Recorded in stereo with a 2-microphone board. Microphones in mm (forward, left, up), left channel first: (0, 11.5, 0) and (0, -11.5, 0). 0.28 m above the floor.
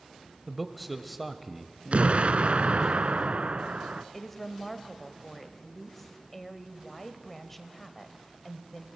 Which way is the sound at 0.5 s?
Centre (ahead or behind).